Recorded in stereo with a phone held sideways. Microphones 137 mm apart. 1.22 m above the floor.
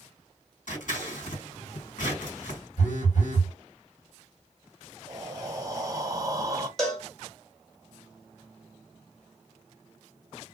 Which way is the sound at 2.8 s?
75° left (ahead or behind).